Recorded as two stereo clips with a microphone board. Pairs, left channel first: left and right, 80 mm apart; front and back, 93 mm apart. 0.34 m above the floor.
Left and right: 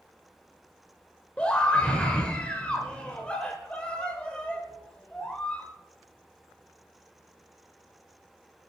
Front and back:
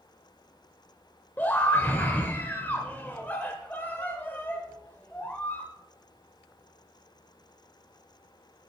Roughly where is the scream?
Ahead left.